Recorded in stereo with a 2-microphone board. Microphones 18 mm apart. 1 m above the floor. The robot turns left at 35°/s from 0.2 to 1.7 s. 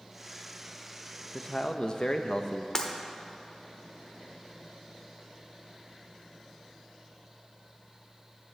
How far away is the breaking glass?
About 0.8 m.